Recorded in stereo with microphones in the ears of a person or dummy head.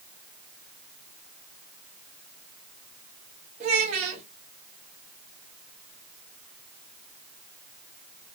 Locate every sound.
3.6 s a child speaking: 35° right (ahead or behind), 1.3 m